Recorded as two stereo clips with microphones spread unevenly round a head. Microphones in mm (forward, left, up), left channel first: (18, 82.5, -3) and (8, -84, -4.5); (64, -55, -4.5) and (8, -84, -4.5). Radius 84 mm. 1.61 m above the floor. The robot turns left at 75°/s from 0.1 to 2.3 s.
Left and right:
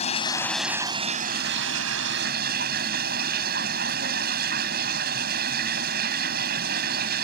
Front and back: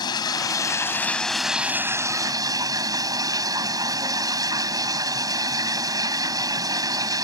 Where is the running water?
35° left; by 7.2 s 130° right.